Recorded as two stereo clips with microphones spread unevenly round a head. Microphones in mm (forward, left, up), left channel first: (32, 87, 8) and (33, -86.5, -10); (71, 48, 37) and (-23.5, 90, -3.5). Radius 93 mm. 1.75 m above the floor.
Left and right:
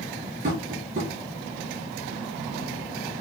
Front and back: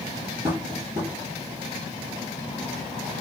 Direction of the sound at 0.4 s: 140° right.